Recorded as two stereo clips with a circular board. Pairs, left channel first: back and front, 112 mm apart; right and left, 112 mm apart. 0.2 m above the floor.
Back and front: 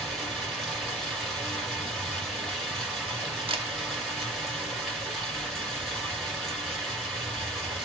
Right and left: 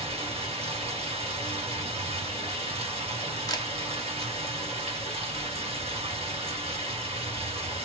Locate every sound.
0.0 s running water: 90° left, 2.5 m
3.5 s a camera shutter: 35° right, 0.7 m